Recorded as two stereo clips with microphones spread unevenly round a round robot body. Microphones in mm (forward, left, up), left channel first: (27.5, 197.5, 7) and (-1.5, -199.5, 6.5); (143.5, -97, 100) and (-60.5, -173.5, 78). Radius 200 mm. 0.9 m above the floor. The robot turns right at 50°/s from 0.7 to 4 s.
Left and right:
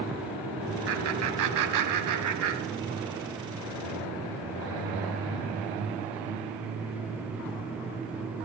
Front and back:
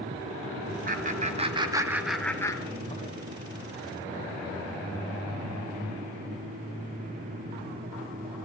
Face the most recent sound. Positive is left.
turn(degrees=15)